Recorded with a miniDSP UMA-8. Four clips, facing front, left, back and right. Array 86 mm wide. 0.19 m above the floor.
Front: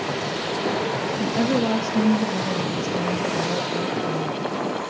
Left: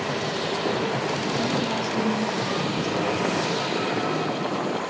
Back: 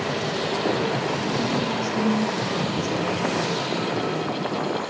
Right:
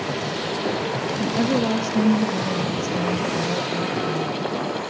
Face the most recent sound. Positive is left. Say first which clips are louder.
# right 4 dB, front 3 dB
turn(degrees=-45)